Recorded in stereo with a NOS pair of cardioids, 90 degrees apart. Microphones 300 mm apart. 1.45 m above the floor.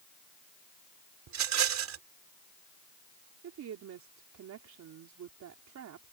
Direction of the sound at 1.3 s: 65° right.